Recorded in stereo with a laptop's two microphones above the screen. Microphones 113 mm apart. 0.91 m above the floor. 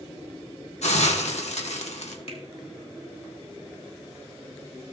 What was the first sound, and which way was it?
A hiss, 80° left.